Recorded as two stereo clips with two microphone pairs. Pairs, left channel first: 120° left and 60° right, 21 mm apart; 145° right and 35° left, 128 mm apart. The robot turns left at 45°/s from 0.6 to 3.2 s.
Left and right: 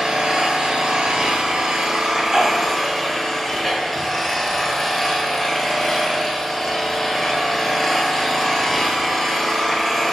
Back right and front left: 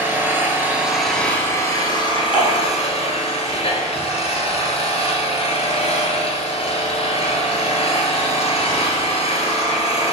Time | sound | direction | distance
0.0 | an engine running | 40° right | 0.8 m
2.3 | dishes clattering | 45° right | 1.8 m